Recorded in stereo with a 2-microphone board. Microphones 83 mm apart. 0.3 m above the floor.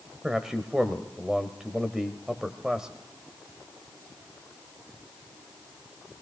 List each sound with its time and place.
0.2 s a man speaking: 5° right (ahead or behind), 0.9 m